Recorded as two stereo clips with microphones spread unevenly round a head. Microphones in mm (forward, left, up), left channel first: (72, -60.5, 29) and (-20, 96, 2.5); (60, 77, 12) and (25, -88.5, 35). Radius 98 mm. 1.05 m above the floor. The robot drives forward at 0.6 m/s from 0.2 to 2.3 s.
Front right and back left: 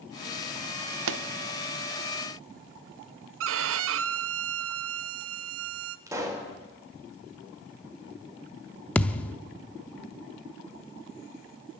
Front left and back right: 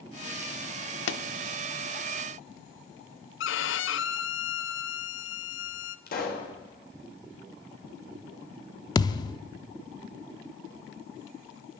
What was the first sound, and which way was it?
A pop, 110° left.